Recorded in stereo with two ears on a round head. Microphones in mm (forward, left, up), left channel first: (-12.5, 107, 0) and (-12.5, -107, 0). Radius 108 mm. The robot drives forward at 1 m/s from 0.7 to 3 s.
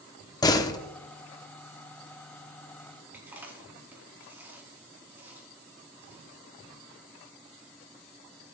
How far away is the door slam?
About 0.8 m.